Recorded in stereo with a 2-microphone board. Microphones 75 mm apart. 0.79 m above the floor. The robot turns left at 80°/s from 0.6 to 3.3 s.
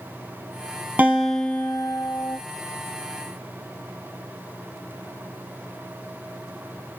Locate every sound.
1.0 s a guitar: 160° right, 3.5 m; by 2.4 s 90° left, 3.5 m